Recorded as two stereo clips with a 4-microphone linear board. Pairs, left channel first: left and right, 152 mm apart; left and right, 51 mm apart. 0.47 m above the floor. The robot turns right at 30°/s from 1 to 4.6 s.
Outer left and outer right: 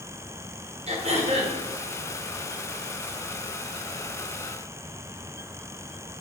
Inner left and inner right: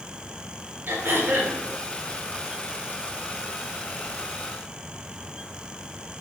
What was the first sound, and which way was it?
Throat clearing, 45° right (ahead or behind).